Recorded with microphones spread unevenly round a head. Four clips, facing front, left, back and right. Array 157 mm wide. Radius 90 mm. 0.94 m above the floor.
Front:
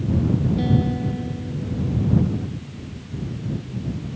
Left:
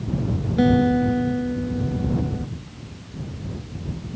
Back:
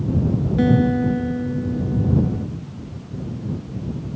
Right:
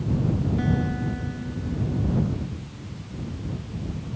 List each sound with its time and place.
0.6 s a guitar: 135° left